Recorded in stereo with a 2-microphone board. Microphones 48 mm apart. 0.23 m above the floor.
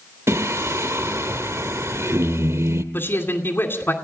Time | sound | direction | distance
0.3 | singing | 70° right (ahead or behind) | 1.0 m
2.9 | a man speaking | 50° left (ahead or behind) | 2.5 m